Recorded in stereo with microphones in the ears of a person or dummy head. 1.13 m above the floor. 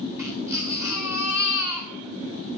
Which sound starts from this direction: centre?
A baby crying, at 0.2 s.